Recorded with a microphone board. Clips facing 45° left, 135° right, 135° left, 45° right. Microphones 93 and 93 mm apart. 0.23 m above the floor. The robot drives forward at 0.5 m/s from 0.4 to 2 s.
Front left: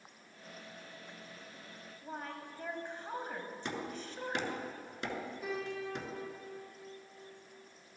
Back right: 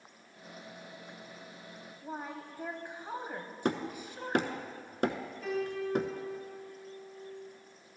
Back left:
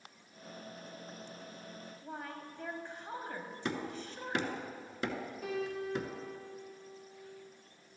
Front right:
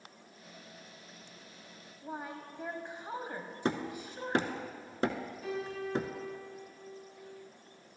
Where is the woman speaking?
85° right, 0.9 m.